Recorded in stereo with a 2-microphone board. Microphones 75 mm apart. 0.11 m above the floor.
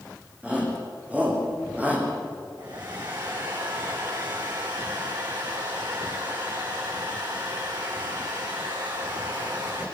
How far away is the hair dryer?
About 7.5 m.